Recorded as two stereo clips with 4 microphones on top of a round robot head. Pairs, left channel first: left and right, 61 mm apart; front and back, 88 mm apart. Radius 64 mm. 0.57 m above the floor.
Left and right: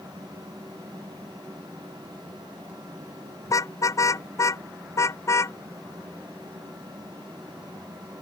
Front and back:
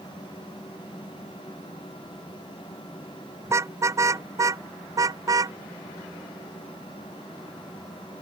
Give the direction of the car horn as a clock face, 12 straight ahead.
8 o'clock.